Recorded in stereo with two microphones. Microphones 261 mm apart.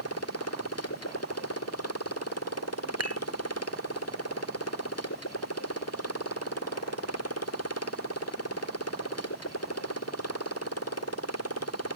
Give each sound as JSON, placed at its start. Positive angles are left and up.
{"t": 0.0, "sound": "a motorcycle", "side_deg": 70}
{"t": 3.0, "sound": "dishes clattering", "side_deg": -70}